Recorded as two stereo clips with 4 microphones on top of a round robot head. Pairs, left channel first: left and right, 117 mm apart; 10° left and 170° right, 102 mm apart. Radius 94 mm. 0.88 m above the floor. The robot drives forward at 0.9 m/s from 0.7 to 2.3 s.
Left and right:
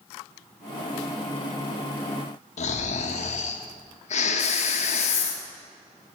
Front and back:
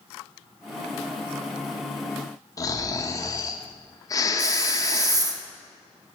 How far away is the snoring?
About 0.8 m.